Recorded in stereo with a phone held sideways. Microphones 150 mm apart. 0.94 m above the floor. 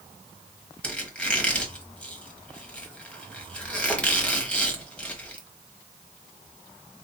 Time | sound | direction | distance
0.8 | a squeak | 10° left (ahead or behind) | 1.1 m